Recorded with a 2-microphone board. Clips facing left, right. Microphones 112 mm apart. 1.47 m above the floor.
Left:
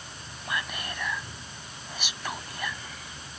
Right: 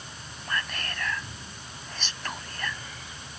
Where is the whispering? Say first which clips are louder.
Even; 10° left (ahead or behind).